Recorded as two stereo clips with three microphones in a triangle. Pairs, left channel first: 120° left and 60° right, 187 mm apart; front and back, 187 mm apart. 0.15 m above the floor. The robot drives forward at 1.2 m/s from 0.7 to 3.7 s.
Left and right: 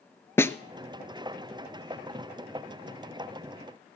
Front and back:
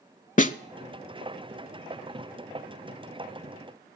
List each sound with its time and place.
0.4 s a snare drum: 45° left, 0.5 m